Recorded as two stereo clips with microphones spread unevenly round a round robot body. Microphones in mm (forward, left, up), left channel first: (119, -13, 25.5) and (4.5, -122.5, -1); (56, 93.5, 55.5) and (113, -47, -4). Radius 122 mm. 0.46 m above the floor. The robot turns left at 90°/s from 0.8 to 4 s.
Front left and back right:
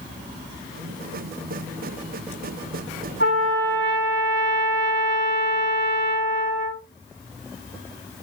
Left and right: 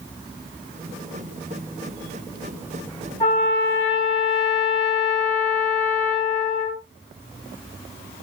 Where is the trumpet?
165° right, 3 m; by 6.8 s 125° left, 3 m.